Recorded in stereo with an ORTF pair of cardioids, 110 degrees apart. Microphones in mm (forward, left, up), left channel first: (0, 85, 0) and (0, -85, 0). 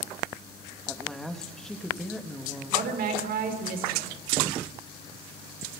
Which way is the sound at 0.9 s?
5° left.